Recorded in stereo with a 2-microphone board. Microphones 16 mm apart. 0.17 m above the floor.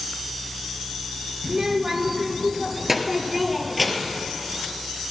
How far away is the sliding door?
I don't hear a sliding door.